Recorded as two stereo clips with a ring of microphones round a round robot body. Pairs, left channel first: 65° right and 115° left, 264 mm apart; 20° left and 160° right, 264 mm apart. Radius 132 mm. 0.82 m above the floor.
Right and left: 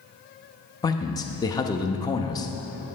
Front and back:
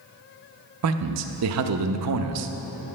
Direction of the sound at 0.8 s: 140° right.